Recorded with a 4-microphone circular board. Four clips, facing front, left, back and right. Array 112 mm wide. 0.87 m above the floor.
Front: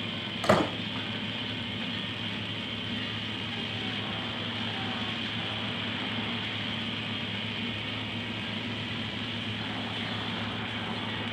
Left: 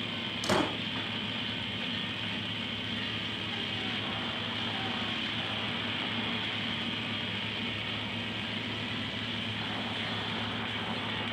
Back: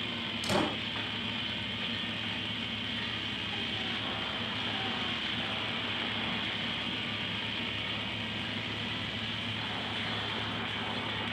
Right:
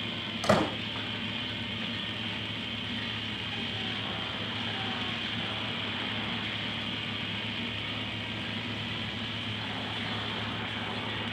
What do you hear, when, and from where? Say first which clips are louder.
0.4 s a door slam: right 4 dB, front 7 dB; 25° right, 3 m